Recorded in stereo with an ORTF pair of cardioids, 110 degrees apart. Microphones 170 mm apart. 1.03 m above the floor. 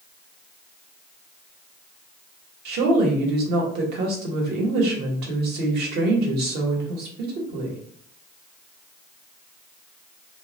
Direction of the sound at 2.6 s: 70° right.